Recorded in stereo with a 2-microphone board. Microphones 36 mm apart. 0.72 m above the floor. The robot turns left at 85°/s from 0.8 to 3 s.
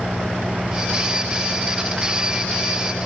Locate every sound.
0.0 s an engine running: 140° right; by 3.1 s 30° left